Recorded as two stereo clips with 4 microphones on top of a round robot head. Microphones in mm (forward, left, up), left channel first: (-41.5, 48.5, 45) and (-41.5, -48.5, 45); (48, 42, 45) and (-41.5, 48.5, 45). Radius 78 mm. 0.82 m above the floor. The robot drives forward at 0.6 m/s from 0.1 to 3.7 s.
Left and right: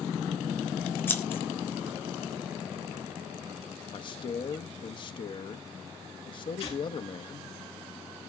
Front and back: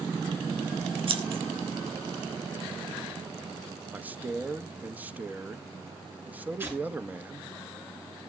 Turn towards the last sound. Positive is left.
turn(degrees=110)